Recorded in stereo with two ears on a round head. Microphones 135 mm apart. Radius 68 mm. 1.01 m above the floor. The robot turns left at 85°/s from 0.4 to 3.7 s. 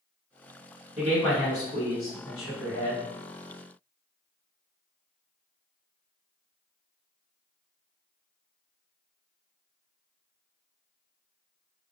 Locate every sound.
1.0 s a man speaking: 165° right, 1.6 m; by 3.0 s 20° left, 1.6 m